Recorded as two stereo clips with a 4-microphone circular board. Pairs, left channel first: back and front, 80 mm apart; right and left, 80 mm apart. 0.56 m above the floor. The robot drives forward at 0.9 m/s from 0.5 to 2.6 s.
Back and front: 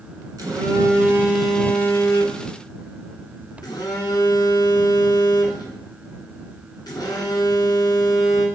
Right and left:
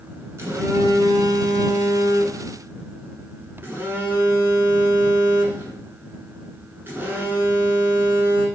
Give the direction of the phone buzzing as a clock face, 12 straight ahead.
11 o'clock.